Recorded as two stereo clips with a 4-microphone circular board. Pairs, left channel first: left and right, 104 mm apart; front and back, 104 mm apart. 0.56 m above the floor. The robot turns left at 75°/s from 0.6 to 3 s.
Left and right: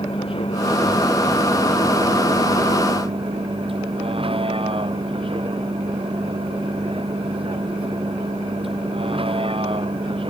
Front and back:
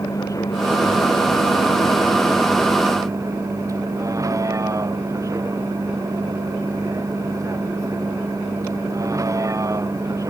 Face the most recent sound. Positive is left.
turn(degrees=-120)